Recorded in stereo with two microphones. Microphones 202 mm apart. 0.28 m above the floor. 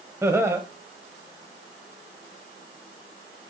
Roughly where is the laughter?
Centre.